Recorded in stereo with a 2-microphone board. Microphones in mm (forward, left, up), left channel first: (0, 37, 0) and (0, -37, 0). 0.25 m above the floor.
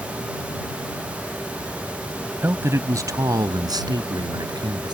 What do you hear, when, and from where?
2.4 s a man speaking: 30° right (ahead or behind); by 4.9 s 70° right (ahead or behind)